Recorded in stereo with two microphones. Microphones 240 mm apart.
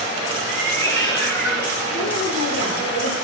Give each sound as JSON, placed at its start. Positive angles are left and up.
{"t": 0.5, "sound": "a cat meowing", "side_deg": 40, "distance_m": 8.5}
{"t": 1.9, "sound": "a woman speaking", "side_deg": 70, "distance_m": 5.5}